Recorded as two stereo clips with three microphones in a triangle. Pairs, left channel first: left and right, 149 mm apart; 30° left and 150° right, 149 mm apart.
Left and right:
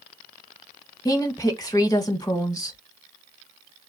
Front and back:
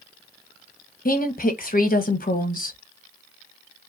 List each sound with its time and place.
1.1 s a woman speaking: 25° left, 1.3 m